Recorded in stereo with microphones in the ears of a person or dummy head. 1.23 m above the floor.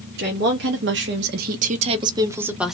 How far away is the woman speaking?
About 1.0 m.